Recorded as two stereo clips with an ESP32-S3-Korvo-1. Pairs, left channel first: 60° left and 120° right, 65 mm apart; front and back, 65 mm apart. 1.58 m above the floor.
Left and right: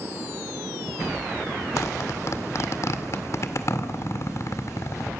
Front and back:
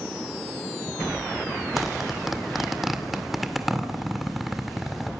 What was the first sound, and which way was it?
A zipper, 90° left.